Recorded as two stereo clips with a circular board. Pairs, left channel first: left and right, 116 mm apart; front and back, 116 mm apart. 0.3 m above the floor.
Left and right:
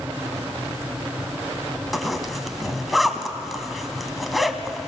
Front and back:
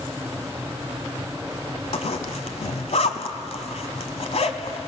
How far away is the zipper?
About 1.2 m.